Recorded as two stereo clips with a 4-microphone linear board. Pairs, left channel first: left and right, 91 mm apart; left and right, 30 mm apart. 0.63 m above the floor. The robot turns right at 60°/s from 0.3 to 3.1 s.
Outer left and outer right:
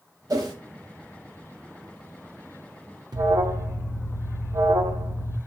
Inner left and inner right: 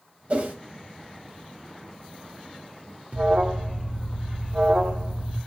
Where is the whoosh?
45° right (ahead or behind), 0.9 m; by 0.6 s 55° right (ahead or behind), 0.9 m.